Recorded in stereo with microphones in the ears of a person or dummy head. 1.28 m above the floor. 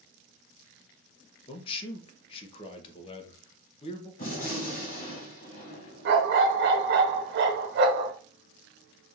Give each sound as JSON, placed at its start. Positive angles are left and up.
{"t": 1.5, "sound": "a man speaking", "side_deg": 35, "distance_m": 1.0}
{"t": 4.2, "sound": "a gunshot", "side_deg": 45, "distance_m": 2.5}
{"t": 6.0, "sound": "a dog barking", "side_deg": -55, "distance_m": 1.2}